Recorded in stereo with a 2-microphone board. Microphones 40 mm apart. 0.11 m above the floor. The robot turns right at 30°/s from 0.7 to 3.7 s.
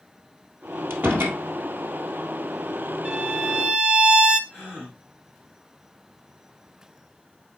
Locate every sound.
0.9 s a door slam: 65° right (ahead or behind), 1.7 m; by 1.4 s 55° right (ahead or behind), 1.7 m
3.0 s a violin: 20° right (ahead or behind), 0.9 m; by 4.4 s 30° right (ahead or behind), 0.9 m
4.5 s a gasp: centre (ahead or behind), 4 m